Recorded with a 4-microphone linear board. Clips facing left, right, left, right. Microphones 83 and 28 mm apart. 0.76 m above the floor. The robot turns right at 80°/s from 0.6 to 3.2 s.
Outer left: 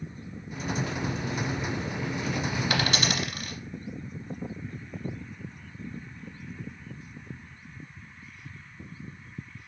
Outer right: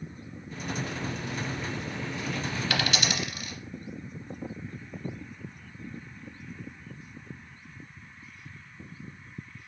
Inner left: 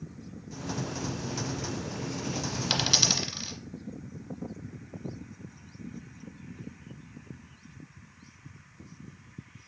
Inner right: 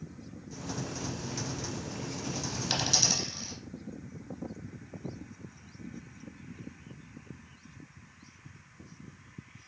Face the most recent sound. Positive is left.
turn(degrees=50)  # may be behind; listen again after turning